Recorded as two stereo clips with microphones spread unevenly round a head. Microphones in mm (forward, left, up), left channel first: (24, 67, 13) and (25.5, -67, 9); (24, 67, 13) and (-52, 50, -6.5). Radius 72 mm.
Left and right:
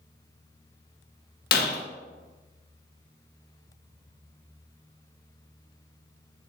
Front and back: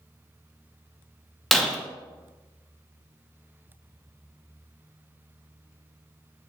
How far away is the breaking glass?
About 1.2 m.